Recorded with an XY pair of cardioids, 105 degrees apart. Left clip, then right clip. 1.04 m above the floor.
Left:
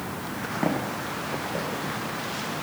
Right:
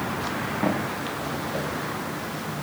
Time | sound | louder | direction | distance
0.6 | footsteps | left 1 dB | 10° left | 9 m